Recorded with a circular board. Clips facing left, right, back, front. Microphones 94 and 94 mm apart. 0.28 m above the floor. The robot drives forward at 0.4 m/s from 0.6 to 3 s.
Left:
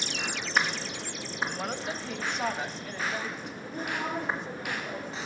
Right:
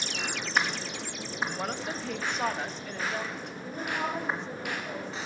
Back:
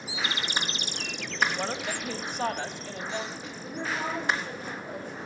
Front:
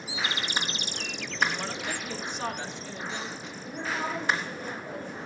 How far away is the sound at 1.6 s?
About 1.1 m.